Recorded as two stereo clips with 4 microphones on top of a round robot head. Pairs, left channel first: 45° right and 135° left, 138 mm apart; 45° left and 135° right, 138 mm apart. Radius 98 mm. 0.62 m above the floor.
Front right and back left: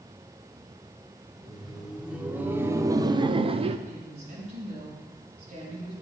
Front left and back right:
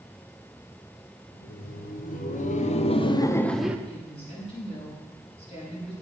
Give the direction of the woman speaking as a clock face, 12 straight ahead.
9 o'clock.